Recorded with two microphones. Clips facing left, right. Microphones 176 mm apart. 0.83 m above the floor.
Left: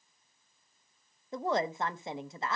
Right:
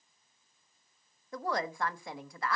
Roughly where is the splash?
No splash in this recording.